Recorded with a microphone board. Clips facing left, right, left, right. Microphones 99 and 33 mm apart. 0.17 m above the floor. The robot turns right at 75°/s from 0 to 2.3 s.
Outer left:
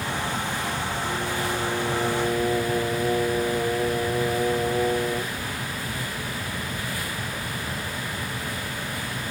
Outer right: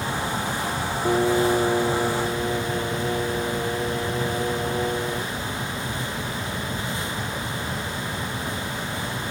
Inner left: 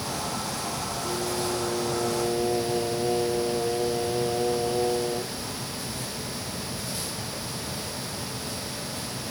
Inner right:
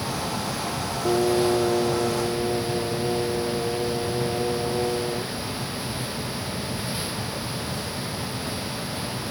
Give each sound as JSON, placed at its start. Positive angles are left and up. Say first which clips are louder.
{"t": 1.1, "sound": "singing", "louder": "outer right 12 dB, inner right 10 dB", "azimuth_deg": -80}